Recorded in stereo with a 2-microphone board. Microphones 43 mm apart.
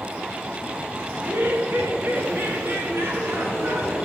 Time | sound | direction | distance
1.1 | laughter | 50° right (ahead or behind) | 1.4 m